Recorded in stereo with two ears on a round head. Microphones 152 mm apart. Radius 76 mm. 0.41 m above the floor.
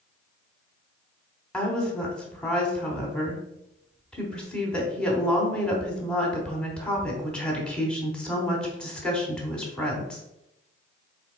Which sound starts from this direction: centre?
A woman speaking, at 1.5 s.